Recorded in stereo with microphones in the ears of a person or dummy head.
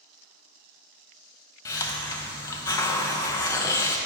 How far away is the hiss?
About 0.5 m.